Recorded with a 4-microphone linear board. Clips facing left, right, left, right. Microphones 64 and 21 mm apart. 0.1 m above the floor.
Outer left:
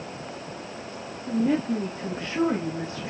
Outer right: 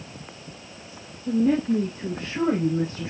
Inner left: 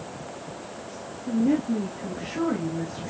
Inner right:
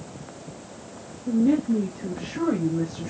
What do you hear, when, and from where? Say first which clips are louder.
1.3 s a woman speaking: outer right 3 dB, inner right 2 dB; 60° right (ahead or behind), 3 m; by 3.1 s 55° right (ahead or behind), 4.5 m